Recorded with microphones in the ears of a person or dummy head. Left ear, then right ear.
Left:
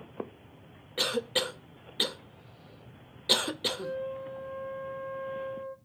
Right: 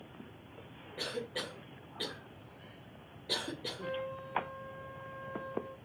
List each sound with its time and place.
1.0 s a cough: 50° left (ahead or behind), 0.5 m
3.8 s a trumpet: 50° right (ahead or behind), 1.2 m